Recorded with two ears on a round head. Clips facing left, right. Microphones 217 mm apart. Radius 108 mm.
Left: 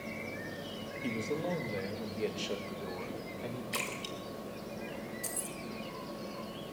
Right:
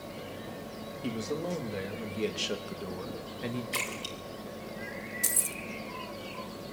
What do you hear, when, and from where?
1.0 s a man speaking: 5° right (ahead or behind), 2.5 m; by 3.6 s 40° right (ahead or behind), 1.3 m
3.7 s a splash: centre (ahead or behind), 4 m
5.2 s keys jangling: 30° right (ahead or behind), 0.7 m